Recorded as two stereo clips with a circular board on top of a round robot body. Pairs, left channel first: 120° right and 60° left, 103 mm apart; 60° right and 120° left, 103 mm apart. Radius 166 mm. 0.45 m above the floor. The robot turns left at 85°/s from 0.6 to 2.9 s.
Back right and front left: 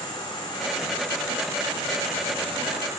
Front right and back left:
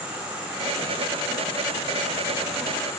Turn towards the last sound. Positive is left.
turn(degrees=5)